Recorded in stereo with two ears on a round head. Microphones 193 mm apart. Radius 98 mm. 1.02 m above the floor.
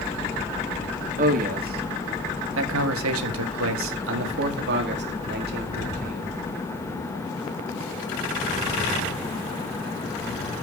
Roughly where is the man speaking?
Right.